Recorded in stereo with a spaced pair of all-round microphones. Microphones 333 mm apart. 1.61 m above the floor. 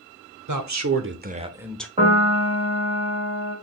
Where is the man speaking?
65° right (ahead or behind), 0.7 m; by 1.9 s 5° left (ahead or behind), 0.6 m.